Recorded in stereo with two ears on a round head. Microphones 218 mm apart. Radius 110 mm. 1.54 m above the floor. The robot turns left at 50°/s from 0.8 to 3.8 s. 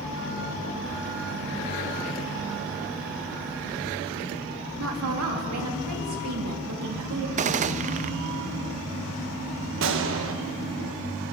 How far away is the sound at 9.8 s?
About 1.4 m.